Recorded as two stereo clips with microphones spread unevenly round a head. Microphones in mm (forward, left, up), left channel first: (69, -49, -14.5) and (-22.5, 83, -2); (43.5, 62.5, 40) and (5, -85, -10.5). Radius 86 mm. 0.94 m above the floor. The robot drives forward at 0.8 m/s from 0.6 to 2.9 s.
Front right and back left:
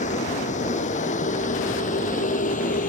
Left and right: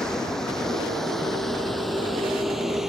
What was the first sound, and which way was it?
A vehicle, 10° right.